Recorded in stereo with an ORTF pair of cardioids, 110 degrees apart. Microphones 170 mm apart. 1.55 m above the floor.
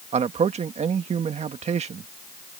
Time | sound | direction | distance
0.1 | a man speaking | 40° right | ?